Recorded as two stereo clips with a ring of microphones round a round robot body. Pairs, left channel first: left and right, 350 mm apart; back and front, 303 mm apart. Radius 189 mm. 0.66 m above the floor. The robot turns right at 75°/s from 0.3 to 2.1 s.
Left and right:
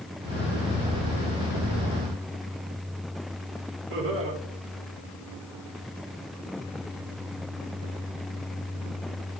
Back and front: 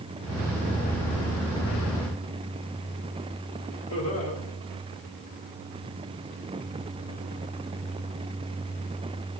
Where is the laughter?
140° right, 2 m.